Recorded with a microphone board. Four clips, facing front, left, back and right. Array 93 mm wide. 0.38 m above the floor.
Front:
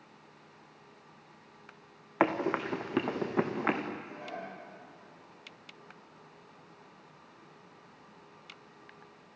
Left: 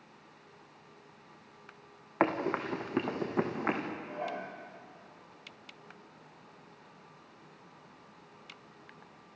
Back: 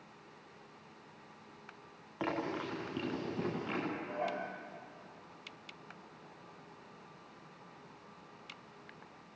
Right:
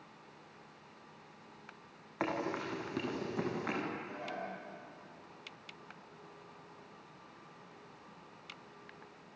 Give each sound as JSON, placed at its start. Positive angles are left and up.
{"t": 2.2, "sound": "running footsteps", "azimuth_deg": 35, "distance_m": 3.0}
{"t": 3.9, "sound": "dishes clattering", "azimuth_deg": 135, "distance_m": 7.5}